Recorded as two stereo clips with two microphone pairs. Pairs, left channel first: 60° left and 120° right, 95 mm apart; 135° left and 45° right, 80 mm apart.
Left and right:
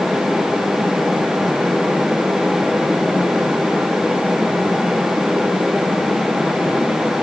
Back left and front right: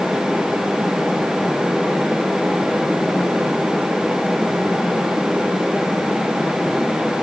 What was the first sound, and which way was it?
Only background noise.